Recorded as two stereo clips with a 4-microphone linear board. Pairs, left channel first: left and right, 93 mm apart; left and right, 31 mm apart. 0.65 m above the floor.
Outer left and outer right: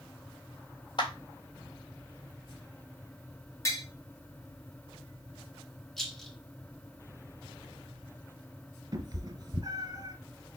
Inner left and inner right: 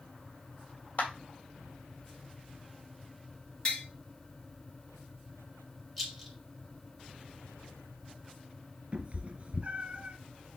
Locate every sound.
1.0 s a clap: 55° left (ahead or behind), 1.8 m
3.6 s tapping: 30° left (ahead or behind), 2 m
6.0 s a rattle: 5° left (ahead or behind), 1.6 m
8.9 s a cat meowing: 40° right (ahead or behind), 1.7 m